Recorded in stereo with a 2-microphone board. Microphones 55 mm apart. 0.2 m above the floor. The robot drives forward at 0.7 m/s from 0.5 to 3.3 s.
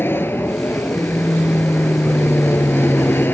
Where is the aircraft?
50° left (ahead or behind); by 3.3 s 45° left (ahead or behind).